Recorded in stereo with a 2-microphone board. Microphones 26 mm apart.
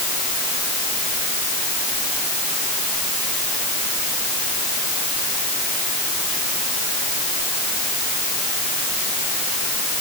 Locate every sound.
Only background noise.